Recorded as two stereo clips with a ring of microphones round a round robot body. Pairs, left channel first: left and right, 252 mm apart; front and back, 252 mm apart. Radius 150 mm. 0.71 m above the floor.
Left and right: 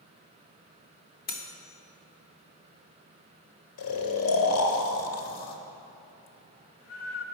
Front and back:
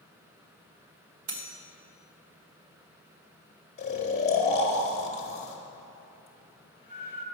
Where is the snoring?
65° left, 1.2 m.